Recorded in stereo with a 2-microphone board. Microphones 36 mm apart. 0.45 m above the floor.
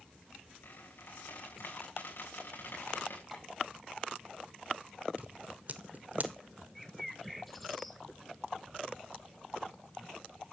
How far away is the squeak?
About 6.5 m.